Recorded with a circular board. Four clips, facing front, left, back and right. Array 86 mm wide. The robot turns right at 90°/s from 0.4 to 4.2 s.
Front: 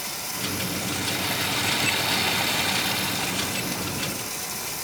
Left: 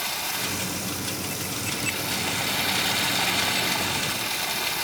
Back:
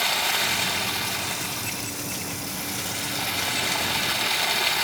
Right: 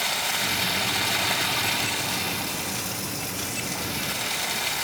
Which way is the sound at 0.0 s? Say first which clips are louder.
Right 3 dB, back 8 dB; 160° right.